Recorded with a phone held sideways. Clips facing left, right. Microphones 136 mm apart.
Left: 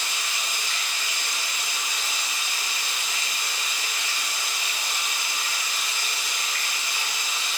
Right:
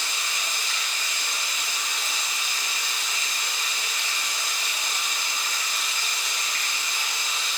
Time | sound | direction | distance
0.0 | running water | 5° left (ahead or behind) | 2.5 m